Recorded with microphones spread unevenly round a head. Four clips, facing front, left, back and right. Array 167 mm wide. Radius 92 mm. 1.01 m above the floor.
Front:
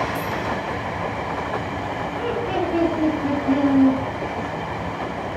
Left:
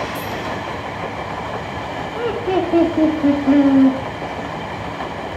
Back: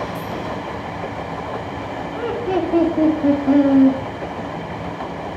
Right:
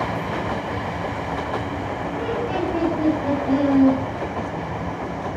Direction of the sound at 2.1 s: 115° left.